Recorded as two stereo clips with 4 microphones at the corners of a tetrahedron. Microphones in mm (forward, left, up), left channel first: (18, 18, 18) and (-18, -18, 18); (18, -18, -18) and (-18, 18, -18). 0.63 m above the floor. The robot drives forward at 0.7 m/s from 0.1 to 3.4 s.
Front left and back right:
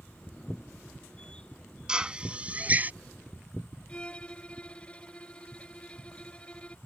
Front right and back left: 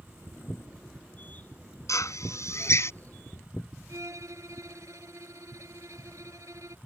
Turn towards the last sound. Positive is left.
turn(degrees=115)